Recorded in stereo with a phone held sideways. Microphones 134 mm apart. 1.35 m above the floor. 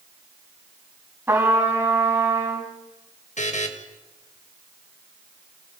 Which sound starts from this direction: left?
A buzzer, at 3.4 s.